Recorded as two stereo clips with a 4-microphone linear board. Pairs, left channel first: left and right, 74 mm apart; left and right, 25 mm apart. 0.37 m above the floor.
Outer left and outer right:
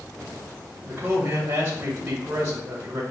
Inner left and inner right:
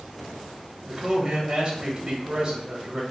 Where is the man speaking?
25° right (ahead or behind), 1.4 m.